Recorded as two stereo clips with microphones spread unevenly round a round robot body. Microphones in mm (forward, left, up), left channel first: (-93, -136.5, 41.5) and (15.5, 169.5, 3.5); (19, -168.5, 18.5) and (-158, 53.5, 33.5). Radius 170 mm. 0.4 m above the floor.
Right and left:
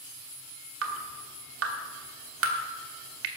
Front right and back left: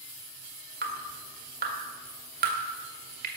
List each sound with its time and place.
0.8 s dripping: 75° left, 1.8 m